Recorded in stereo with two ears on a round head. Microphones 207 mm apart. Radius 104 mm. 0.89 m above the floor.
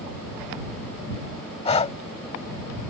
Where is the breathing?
30° left (ahead or behind).